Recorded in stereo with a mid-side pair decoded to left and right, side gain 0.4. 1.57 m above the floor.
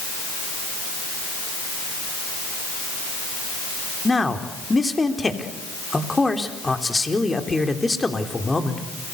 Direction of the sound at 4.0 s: 20° left.